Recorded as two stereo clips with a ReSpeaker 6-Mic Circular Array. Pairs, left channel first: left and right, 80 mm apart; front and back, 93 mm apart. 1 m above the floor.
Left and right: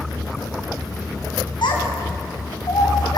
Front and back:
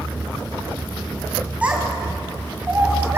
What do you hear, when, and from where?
1.6 s a child speaking: 105° left, 4.5 m; by 3.2 s 115° left, 4.5 m